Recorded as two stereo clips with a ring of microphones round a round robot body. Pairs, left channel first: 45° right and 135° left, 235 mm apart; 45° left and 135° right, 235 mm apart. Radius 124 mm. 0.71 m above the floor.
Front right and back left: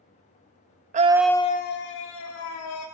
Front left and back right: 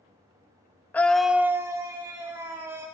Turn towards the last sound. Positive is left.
turn(degrees=-60)